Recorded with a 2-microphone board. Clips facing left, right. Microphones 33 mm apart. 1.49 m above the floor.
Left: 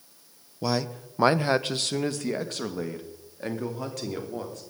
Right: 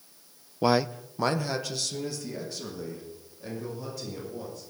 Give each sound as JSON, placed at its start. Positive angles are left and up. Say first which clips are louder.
{"t": 0.6, "sound": "a man speaking", "louder": "right 4 dB", "side_deg": -30, "distance_m": 0.5}